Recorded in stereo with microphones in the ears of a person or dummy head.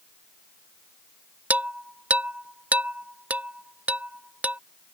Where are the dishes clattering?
10° right (ahead or behind).